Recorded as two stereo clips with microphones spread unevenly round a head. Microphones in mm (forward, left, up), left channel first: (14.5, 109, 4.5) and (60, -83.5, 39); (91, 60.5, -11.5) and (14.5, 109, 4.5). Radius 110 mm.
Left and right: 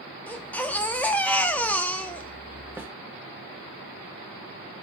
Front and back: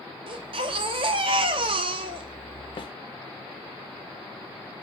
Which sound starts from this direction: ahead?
A snare drum, at 2.8 s.